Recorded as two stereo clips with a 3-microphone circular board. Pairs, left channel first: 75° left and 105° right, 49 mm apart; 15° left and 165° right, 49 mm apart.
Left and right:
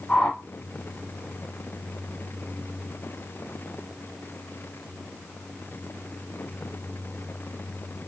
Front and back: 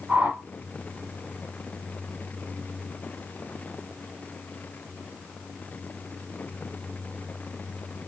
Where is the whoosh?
140° left, 2 m.